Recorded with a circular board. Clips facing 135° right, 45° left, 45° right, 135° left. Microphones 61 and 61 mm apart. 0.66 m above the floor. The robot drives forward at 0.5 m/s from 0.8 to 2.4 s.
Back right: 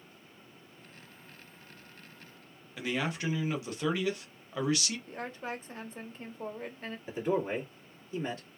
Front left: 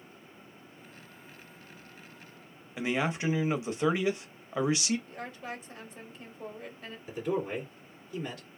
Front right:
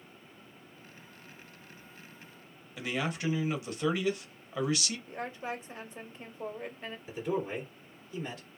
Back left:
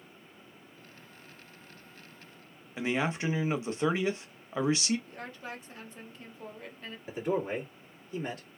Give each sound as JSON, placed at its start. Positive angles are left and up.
{"t": 2.8, "sound": "a man speaking", "azimuth_deg": 95, "distance_m": 0.7}
{"t": 5.1, "sound": "a woman speaking", "azimuth_deg": -100, "distance_m": 0.9}
{"t": 7.1, "sound": "a man speaking", "azimuth_deg": 175, "distance_m": 1.7}